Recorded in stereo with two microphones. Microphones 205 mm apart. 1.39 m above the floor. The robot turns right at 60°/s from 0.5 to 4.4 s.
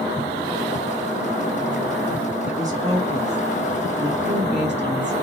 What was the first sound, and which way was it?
A woman speaking, 175° right.